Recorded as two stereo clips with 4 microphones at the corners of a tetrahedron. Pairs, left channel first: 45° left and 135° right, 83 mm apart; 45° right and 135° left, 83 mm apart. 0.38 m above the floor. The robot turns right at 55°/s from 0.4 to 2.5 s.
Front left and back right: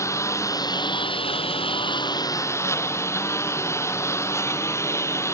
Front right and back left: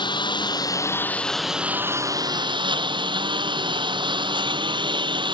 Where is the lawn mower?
10° right; by 5.3 s 105° left.